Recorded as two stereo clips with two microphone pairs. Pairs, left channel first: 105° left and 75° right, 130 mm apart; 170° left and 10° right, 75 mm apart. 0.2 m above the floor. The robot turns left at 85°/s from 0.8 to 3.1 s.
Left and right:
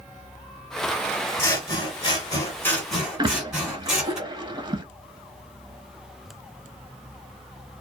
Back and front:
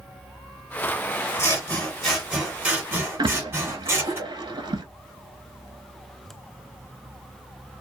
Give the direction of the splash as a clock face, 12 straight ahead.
1 o'clock.